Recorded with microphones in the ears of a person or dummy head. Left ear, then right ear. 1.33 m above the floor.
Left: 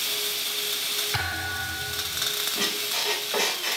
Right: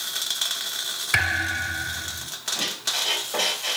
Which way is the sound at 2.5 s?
15° left (ahead or behind).